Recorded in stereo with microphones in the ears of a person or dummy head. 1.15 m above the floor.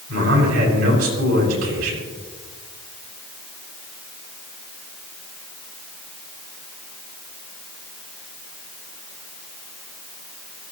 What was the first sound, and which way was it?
A man speaking, 60° right (ahead or behind).